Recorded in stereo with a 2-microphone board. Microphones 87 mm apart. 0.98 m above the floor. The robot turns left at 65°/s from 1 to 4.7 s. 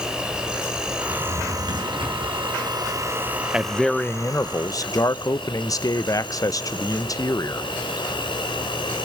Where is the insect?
10° right, 3 m; by 9.1 s 110° left, 3 m.